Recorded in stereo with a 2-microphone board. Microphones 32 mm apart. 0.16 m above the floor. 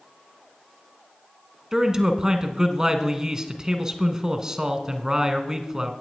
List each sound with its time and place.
1.7 s a man speaking: 20° right (ahead or behind), 1.2 m